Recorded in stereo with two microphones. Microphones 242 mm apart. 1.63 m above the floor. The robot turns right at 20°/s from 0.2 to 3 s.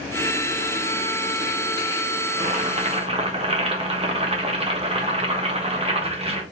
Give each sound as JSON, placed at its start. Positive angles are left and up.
{"t": 2.3, "sound": "boiling", "side_deg": -35, "distance_m": 1.4}